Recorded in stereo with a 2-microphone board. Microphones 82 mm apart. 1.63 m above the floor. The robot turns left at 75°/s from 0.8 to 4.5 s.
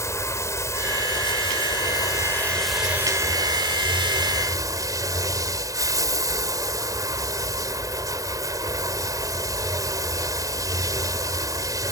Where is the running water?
145° left; by 11.9 s 135° right.